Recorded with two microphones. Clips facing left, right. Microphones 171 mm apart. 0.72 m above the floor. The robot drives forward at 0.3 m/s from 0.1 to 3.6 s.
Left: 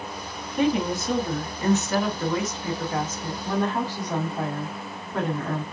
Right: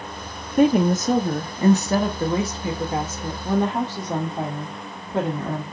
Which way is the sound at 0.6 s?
50° right (ahead or behind).